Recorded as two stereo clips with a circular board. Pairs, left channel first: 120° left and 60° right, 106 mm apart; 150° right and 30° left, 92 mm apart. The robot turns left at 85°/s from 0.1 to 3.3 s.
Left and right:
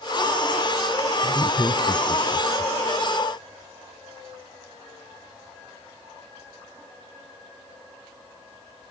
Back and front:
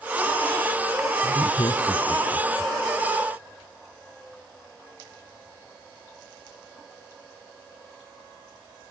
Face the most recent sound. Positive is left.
turn(degrees=25)